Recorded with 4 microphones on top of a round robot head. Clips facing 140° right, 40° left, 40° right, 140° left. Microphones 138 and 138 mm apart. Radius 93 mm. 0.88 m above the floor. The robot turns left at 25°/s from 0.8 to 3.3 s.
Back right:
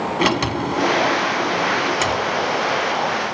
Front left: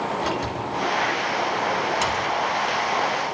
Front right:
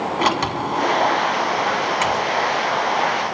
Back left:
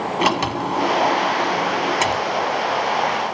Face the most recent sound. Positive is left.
turn(degrees=155)